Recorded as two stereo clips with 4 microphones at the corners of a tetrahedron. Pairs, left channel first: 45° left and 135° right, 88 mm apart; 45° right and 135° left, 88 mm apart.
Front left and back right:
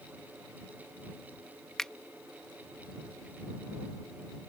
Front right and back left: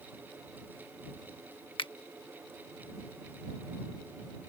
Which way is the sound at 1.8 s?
40° right.